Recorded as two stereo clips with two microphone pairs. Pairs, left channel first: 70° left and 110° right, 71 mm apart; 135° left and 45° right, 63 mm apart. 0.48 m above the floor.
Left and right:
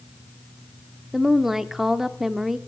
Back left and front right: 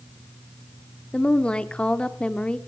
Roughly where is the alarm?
I don't hear an alarm.